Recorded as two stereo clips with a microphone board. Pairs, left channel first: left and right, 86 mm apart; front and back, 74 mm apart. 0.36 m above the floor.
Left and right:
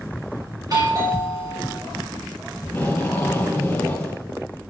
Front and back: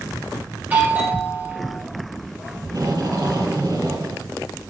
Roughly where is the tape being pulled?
Behind.